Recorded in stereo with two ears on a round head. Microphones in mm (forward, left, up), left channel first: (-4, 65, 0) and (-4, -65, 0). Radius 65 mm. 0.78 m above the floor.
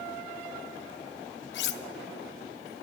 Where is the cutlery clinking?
85° left, 0.6 m.